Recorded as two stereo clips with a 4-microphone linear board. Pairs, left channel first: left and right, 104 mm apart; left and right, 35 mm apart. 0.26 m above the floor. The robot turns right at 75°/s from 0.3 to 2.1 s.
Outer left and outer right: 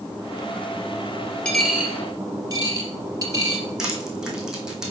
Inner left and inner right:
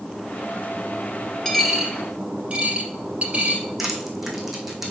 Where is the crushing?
5° right (ahead or behind), 2 m.